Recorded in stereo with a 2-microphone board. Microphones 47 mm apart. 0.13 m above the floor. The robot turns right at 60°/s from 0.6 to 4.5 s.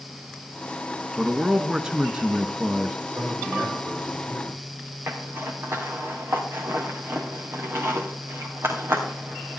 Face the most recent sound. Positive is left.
turn(degrees=-65)  # may be behind; listen again after turning